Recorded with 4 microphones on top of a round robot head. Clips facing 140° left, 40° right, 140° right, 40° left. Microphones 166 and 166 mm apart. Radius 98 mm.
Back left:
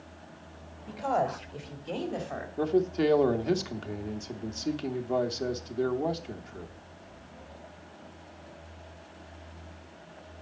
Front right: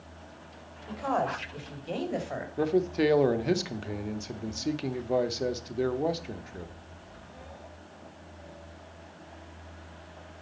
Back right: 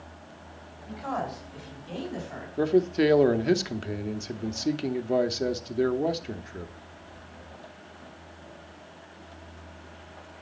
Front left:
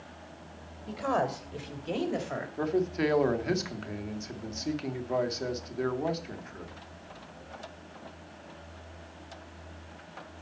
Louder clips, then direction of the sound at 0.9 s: Back left 1 dB, front left 3 dB; 65° left.